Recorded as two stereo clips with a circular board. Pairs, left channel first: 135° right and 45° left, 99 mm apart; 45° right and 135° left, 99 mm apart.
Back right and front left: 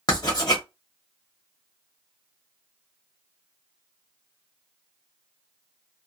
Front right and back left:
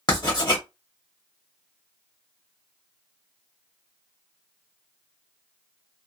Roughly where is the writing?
Right.